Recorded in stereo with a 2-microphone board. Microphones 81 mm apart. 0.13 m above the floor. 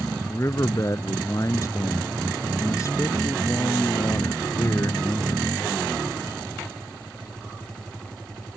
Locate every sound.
0.3 s a man speaking: 40° left (ahead or behind)